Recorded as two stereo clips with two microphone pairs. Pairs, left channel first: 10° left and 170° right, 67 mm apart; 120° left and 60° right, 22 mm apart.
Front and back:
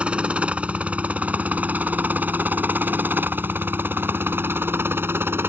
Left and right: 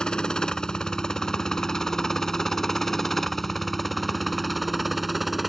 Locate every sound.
0.0 s a helicopter: 130° left; by 5.5 s 145° right